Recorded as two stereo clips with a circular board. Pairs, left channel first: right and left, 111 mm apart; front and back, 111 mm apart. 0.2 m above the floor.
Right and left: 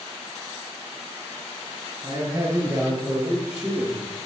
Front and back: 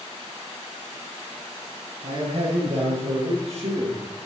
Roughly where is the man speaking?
Behind left.